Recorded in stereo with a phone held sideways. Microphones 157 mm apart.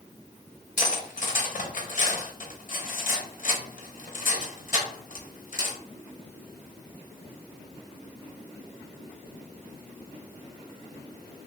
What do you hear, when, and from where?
0.8 s cutlery clinking: 55° left (ahead or behind), 0.6 m